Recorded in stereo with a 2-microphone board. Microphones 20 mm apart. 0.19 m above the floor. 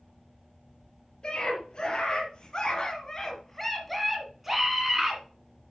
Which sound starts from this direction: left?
A scream, at 1.2 s.